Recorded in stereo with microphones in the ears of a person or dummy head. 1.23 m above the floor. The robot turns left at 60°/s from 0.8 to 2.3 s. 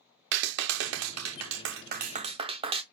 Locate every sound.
0.3 s a clap: 65° right, 0.5 m; by 2.8 s 155° right, 0.5 m